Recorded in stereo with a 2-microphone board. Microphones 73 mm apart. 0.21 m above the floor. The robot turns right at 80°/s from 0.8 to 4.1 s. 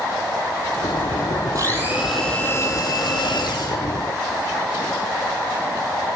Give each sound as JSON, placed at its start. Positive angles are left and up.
{"t": 1.6, "sound": "a blender", "azimuth_deg": -55, "distance_m": 7.0}